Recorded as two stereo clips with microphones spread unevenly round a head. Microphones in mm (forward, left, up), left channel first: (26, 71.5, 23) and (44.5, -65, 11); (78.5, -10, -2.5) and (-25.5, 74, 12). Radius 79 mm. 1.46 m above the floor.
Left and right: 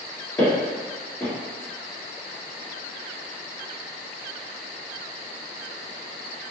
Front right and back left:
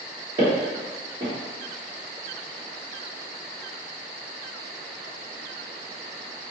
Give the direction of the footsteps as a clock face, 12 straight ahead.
7 o'clock.